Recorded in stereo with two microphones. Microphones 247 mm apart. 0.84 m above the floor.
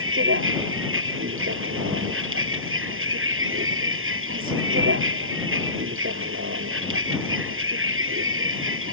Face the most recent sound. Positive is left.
turn(degrees=-55)  # may be behind; listen again after turning